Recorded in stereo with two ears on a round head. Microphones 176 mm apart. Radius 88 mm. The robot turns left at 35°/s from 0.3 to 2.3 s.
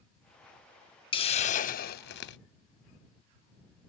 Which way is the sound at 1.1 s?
150° left.